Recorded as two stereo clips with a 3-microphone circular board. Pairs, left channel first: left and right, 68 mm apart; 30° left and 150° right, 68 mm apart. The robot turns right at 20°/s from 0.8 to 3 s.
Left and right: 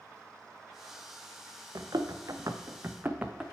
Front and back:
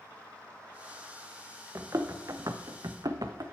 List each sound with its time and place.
1.8 s running footsteps: 110° right, 1.0 m; by 3.4 s 170° right, 1.0 m